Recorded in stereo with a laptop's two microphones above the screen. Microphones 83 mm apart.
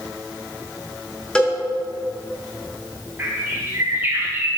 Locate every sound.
1.4 s a cowbell: 10° left (ahead or behind), 1.0 m
3.2 s a bird: 25° right (ahead or behind), 2.5 m